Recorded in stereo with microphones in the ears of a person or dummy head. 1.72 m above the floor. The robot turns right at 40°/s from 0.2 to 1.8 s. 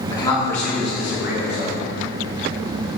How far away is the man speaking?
About 2.0 m.